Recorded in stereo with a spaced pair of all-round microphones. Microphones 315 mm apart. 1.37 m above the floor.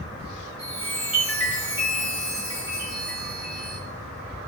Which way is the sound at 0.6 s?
50° left (ahead or behind).